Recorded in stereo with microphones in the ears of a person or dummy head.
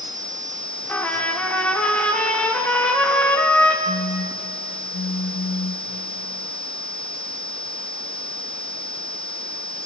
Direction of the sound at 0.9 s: 10° left (ahead or behind).